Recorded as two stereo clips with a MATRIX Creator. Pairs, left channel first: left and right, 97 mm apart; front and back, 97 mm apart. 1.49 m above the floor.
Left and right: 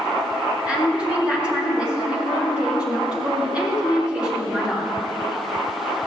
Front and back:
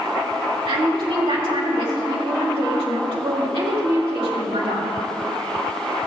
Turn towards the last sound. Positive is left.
turn(degrees=-170)